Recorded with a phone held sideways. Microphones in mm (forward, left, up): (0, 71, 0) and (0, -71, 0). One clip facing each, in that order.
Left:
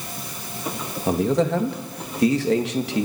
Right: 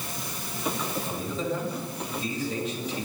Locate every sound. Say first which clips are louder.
1.1 s a man speaking: left 15 dB; 70° left (ahead or behind), 2.5 m